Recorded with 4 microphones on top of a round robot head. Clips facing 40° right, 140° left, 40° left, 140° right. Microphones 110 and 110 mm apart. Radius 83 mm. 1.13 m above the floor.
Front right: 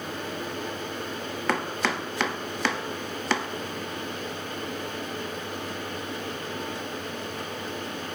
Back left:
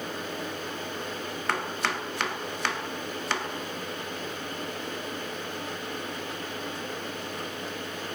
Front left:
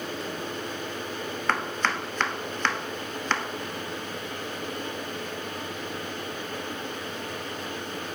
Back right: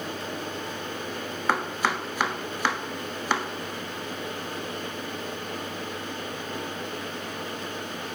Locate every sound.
1.5 s chopping: 60° right, 0.8 m